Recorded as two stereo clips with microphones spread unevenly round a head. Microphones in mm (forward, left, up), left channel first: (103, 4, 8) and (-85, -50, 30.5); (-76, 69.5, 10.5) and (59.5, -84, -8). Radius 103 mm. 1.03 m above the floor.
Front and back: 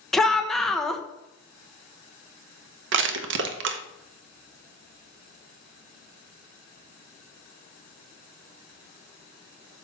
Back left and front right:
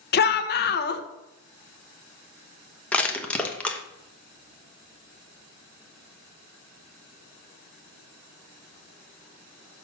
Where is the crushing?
145° right, 1.0 m.